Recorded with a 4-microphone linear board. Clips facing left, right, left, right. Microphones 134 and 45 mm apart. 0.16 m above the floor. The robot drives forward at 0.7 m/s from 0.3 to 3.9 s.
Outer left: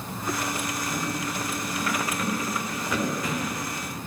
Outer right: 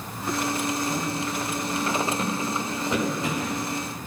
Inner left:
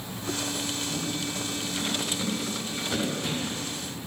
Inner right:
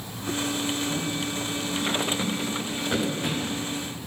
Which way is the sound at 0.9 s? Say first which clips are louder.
Outer right 2 dB, inner right 3 dB; 25° right (ahead or behind).